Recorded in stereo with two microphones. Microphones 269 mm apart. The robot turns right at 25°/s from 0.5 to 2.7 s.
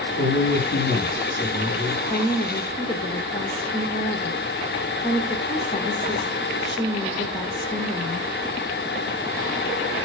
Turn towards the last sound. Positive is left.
turn(degrees=20)  # may be behind; listen again after turning